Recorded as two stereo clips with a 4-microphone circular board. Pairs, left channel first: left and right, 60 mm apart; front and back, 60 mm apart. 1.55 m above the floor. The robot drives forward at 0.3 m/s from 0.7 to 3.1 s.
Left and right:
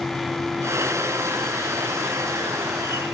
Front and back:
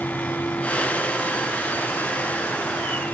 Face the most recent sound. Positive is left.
No sound to turn to.